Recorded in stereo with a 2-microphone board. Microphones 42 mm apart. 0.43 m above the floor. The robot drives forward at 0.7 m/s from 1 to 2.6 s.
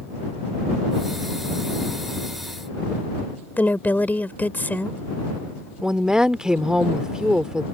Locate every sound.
3.6 s a woman speaking: 45° left (ahead or behind)
5.8 s a woman speaking: 15° right (ahead or behind)